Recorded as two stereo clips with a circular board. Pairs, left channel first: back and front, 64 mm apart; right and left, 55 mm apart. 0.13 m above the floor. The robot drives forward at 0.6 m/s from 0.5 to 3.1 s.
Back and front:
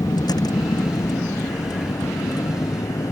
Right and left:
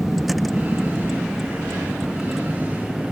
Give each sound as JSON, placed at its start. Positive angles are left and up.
{"t": 0.0, "sound": "a vehicle", "azimuth_deg": 180}